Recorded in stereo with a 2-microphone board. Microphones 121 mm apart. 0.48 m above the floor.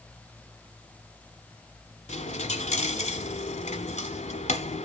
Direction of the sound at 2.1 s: 70° left (ahead or behind).